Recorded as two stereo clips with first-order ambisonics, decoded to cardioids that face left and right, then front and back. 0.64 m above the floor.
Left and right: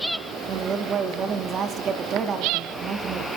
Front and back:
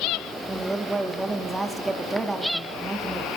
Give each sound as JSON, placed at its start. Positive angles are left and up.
{"t": 0.5, "sound": "a woman speaking", "azimuth_deg": -105, "distance_m": 1.0}